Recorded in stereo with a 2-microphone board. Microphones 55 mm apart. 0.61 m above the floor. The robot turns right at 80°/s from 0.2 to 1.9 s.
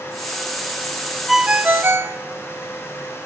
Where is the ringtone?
175° right, 0.8 m; by 2.2 s 125° right, 0.8 m.